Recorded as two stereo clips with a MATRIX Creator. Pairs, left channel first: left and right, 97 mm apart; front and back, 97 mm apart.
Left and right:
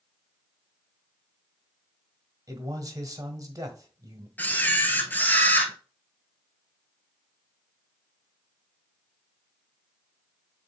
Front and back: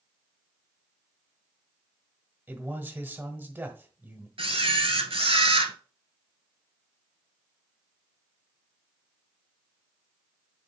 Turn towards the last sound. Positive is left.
turn(degrees=160)